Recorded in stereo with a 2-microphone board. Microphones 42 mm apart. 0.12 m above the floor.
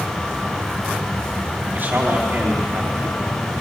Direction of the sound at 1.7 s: 55° right (ahead or behind).